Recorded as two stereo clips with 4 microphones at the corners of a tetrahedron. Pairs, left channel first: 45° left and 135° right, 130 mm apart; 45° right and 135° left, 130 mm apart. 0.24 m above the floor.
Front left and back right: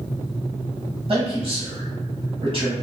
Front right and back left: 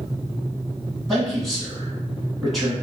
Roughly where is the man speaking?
Behind right.